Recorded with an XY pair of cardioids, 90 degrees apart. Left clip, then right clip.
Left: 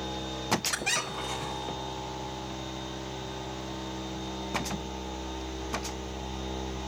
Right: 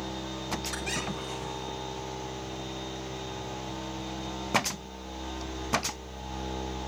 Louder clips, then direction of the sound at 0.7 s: Left 3 dB; 50° left.